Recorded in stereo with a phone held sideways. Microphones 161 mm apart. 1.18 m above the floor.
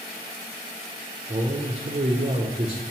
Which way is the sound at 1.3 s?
40° right (ahead or behind).